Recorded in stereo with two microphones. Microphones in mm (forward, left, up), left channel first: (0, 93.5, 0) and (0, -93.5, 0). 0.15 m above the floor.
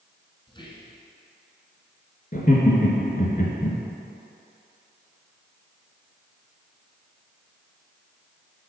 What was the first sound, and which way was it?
Whispering, 25° left (ahead or behind).